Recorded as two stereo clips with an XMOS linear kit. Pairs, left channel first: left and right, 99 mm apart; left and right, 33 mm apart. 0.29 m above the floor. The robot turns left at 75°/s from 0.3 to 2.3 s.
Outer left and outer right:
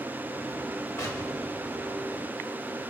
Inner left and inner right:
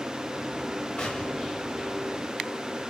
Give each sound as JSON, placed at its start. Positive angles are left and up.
{"t": 1.0, "sound": "an explosion", "azimuth_deg": 75, "distance_m": 1.7}